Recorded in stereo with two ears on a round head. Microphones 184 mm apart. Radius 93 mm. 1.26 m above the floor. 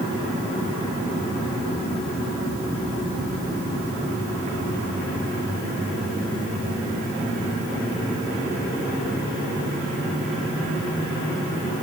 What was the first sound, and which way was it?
Only background noise.